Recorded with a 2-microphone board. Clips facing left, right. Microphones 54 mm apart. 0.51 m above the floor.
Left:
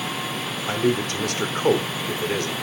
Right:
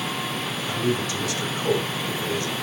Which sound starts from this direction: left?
A man speaking, at 0.7 s.